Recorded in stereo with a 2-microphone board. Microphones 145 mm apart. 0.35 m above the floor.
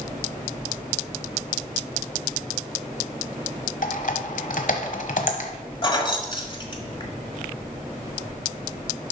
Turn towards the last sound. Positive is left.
turn(degrees=35)  # may be behind; listen again after turning